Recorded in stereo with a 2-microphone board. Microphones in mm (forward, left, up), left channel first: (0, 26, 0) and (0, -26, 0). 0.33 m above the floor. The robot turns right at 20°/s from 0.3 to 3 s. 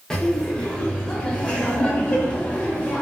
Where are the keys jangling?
No keys jangling in this recording.